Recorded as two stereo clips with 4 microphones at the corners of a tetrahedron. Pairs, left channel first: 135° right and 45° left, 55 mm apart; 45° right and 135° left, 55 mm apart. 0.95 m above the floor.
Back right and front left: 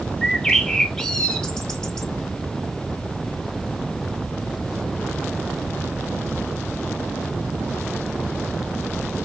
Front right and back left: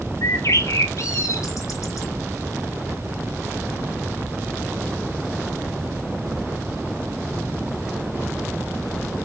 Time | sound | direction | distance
0.2 | a bird | 55° right | 0.8 m